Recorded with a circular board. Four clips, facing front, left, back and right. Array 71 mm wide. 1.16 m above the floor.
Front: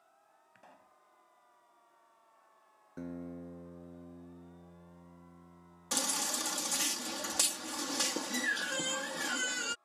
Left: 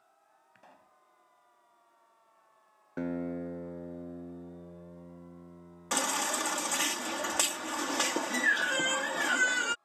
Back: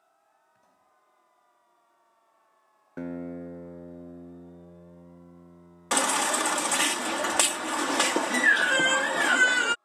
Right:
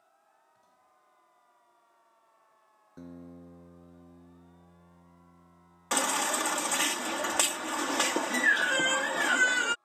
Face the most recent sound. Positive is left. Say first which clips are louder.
# right 3 dB, back 13 dB
turn(degrees=-170)